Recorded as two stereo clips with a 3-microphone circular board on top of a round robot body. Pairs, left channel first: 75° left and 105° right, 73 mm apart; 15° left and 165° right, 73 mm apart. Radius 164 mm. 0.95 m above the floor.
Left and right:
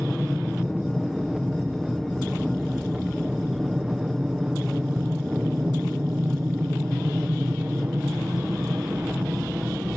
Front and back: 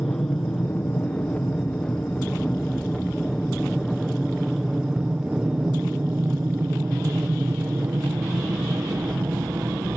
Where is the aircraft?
15° right; by 10.0 s 160° right.